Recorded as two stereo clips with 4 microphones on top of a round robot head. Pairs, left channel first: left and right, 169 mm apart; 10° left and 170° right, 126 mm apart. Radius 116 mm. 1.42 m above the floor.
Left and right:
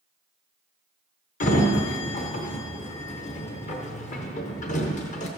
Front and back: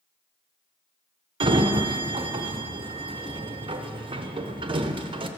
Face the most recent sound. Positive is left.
turn(degrees=140)